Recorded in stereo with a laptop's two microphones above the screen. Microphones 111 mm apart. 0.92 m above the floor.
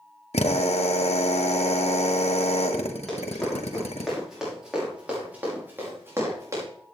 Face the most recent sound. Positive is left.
turn(degrees=-30)  # may be behind; listen again after turning